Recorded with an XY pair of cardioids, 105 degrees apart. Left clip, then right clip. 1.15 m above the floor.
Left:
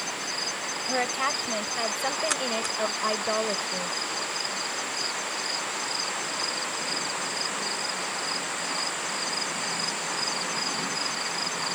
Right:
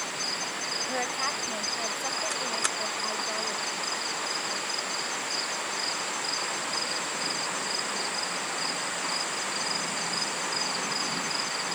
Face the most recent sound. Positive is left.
turn(degrees=70)